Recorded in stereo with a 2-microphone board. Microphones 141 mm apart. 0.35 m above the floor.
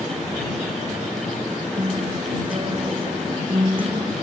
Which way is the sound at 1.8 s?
40° right (ahead or behind).